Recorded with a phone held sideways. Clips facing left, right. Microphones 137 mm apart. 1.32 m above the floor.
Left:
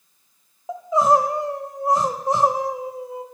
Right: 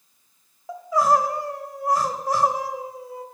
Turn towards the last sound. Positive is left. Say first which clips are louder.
# left 2 dB
turn(degrees=25)  # may be behind; listen again after turning